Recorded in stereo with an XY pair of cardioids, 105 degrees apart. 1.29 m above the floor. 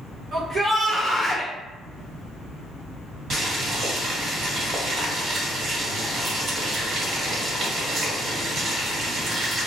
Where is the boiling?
50° right, 1.6 m.